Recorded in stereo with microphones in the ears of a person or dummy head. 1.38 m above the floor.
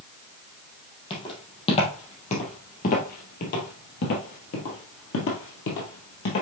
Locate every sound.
1.1 s footsteps: 35° left (ahead or behind), 3 m; by 6.4 s 45° left (ahead or behind), 2.5 m